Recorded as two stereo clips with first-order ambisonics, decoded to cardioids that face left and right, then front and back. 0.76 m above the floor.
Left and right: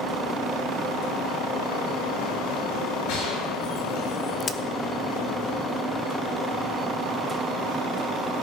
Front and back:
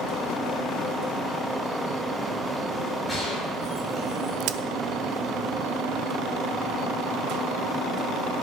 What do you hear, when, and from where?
3.1 s a gunshot: 90° left, 8 m
4.4 s a crack: 160° left, 0.8 m